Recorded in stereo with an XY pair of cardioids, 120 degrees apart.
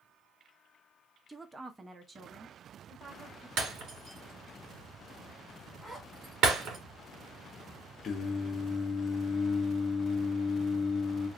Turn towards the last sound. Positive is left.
turn(degrees=50)